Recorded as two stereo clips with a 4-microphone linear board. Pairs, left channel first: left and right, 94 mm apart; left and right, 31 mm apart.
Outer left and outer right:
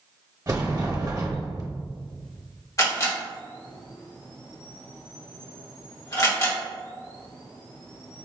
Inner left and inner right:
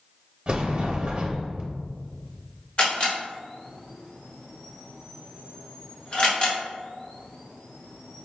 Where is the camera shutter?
40° left (ahead or behind), 1.3 m.